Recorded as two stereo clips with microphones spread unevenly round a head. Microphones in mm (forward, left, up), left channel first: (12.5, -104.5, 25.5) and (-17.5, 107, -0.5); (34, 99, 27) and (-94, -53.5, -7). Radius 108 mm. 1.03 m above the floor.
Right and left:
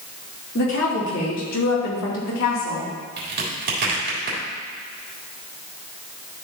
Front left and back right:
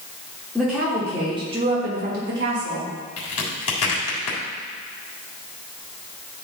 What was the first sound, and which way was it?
A woman speaking, 40° right.